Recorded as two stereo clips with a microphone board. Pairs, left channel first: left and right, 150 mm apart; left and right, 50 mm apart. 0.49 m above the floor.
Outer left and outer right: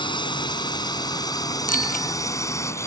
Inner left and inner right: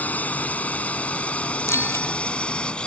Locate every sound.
0.0 s a drone: 30° left (ahead or behind); by 2.9 s 20° left (ahead or behind)
1.7 s a bicycle bell: 70° left (ahead or behind)